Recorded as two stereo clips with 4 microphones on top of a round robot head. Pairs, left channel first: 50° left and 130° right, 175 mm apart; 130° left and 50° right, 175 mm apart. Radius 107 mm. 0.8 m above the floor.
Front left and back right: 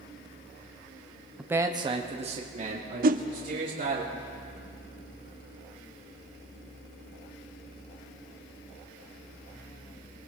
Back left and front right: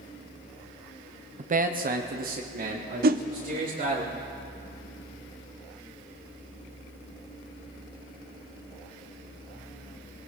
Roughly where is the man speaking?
Ahead right.